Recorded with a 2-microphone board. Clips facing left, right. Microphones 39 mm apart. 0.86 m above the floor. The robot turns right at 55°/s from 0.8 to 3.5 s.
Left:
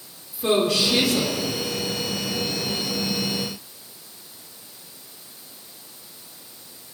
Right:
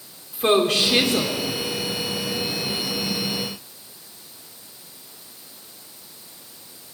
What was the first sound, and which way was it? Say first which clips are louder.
A woman speaking: right 2 dB; 55° right.